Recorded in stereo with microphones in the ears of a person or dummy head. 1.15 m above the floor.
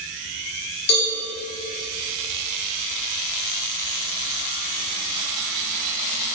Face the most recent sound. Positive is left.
turn(degrees=85)